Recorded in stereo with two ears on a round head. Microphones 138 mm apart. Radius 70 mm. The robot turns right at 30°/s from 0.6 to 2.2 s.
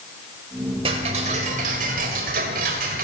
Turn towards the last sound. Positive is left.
turn(degrees=-95)